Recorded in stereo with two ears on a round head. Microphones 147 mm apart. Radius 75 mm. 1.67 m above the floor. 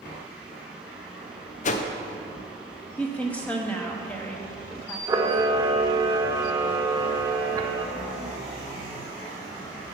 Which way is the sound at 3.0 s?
10° left (ahead or behind).